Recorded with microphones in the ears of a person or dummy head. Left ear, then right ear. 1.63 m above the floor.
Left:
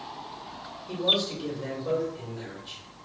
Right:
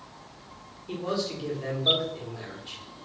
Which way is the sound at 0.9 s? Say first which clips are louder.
Left 6 dB; 10° right (ahead or behind).